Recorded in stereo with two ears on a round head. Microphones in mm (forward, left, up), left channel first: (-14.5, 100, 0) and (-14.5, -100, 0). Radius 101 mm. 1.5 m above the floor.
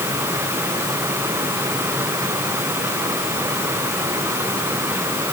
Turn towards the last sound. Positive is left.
No sound to turn to.